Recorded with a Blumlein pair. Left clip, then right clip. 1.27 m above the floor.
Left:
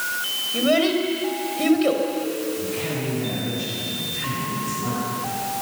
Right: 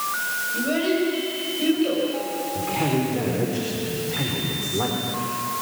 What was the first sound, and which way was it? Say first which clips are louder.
A child speaking: left 5 dB; 25° left.